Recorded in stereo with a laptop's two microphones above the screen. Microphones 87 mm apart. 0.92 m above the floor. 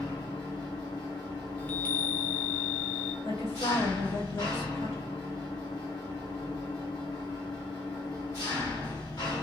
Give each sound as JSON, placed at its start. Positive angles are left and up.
{"t": 0.0, "sound": "an engine running", "side_deg": 45, "distance_m": 1.6}
{"t": 1.6, "sound": "a chime", "side_deg": 20, "distance_m": 0.5}
{"t": 3.2, "sound": "a woman speaking", "side_deg": 80, "distance_m": 1.3}